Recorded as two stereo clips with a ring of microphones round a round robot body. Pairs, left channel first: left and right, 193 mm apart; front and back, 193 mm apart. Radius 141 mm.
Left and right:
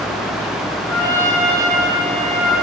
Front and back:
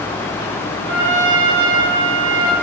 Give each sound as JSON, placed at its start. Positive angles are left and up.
{"t": 0.9, "sound": "a trumpet", "azimuth_deg": 170, "distance_m": 4.5}